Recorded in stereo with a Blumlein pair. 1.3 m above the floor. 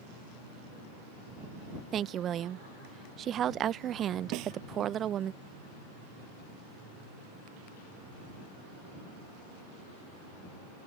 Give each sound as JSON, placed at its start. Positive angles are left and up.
{"t": 1.9, "sound": "a woman speaking", "azimuth_deg": -25}
{"t": 4.3, "sound": "a snare drum", "azimuth_deg": -40}